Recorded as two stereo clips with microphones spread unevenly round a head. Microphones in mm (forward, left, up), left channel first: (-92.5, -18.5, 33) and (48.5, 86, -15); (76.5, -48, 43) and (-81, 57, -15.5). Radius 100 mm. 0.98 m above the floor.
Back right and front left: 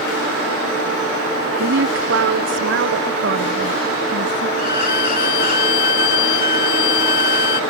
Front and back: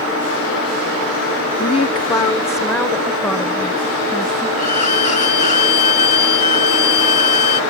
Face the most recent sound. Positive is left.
turn(degrees=-90)